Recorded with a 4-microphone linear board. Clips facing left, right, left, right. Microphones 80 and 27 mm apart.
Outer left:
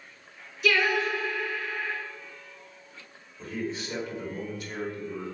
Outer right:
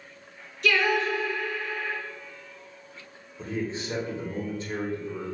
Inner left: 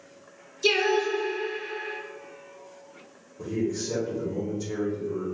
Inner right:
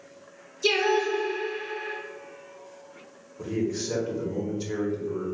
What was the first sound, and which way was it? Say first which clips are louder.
Singing: outer right 1 dB, even; 5° left (ahead or behind).